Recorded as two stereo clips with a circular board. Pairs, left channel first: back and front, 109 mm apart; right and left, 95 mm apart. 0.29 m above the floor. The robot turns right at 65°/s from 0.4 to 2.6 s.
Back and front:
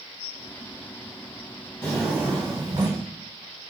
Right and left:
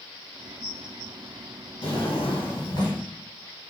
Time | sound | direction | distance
1.8 | a drawer | 100° right | 2.5 m